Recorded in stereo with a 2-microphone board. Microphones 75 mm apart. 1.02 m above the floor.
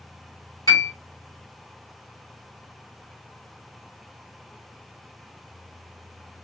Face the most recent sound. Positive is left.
turn(degrees=50)  # may be behind; listen again after turning